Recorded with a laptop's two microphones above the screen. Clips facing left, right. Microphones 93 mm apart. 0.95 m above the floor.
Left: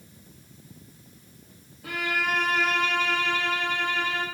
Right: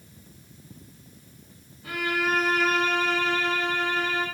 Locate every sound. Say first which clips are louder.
1.8 s a violin: right 2 dB; 80° left, 0.6 m